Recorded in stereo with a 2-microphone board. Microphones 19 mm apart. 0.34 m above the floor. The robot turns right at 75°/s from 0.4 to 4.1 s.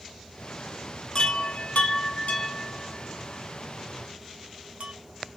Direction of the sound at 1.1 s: 35° left (ahead or behind).